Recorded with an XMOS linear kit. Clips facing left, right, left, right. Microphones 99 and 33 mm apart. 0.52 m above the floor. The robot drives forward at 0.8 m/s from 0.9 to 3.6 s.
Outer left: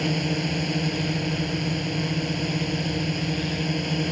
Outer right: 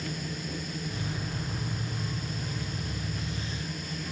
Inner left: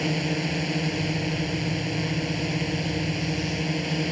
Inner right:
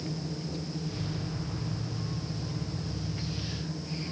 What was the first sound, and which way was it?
A drone, 85° left.